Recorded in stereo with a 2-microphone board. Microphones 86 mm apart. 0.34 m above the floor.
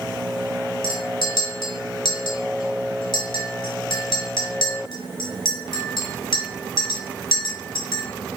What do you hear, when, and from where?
0.8 s a clink: 60° left (ahead or behind), 1.1 m